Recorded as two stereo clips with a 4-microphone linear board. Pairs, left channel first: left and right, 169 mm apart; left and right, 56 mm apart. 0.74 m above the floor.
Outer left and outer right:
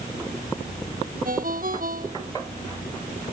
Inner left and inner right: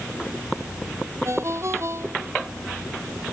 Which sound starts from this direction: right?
A ringtone, at 1.2 s.